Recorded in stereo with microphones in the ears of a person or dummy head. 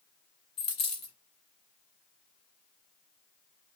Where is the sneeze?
I don't hear a sneeze.